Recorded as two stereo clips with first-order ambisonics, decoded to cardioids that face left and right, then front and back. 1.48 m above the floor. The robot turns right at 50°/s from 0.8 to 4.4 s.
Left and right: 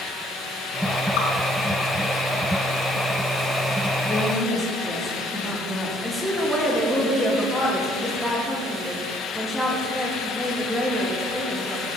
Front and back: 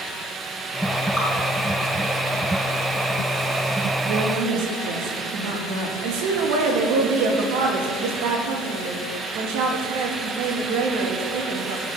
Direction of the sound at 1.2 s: 85° left.